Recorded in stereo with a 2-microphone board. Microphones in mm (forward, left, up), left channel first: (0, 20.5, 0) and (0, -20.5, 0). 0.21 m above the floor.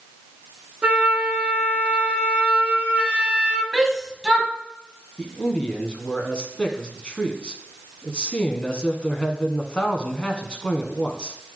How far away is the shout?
About 1.6 m.